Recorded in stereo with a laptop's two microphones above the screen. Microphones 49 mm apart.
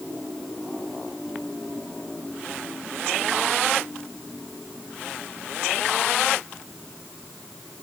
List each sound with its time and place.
Only background noise.